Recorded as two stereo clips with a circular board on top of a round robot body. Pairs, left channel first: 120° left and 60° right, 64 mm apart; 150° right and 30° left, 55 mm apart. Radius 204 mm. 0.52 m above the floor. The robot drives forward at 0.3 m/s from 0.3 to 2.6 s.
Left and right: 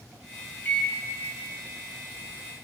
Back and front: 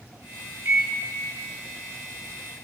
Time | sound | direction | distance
0.7 | a microwave | 65° left | 0.7 m